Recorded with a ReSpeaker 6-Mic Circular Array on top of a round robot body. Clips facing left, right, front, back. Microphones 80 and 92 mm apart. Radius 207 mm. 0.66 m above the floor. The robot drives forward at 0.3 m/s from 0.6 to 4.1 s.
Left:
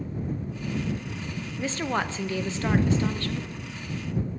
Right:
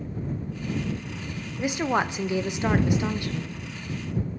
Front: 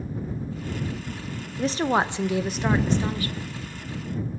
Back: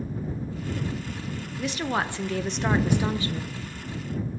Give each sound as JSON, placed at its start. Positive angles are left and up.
{"t": 1.6, "sound": "a woman speaking", "azimuth_deg": -20, "distance_m": 0.7}